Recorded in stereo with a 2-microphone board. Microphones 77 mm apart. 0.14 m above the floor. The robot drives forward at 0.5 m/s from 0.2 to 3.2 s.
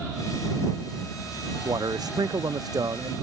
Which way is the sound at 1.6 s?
60° right (ahead or behind).